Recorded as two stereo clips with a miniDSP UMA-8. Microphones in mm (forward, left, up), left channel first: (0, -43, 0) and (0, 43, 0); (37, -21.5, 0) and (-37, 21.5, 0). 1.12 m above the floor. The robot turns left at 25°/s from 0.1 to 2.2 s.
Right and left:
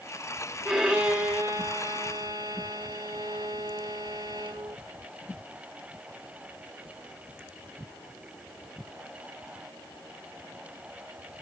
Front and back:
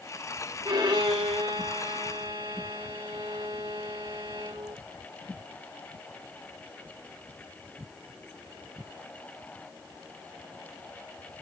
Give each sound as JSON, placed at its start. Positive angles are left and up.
{"t": 0.7, "sound": "a violin", "azimuth_deg": 170, "distance_m": 1.7}